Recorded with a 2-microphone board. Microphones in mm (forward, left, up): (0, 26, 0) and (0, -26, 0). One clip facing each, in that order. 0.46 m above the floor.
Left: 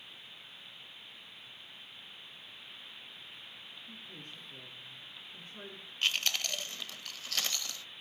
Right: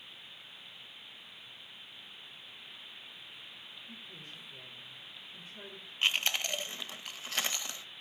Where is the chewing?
25° right (ahead or behind), 0.5 m.